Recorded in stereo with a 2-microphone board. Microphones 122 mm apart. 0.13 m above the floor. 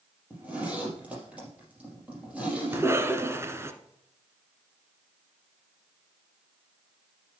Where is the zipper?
10° right (ahead or behind), 4 m.